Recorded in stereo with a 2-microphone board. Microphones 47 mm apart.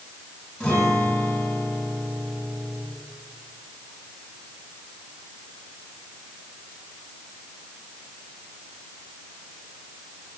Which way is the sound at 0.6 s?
15° left (ahead or behind).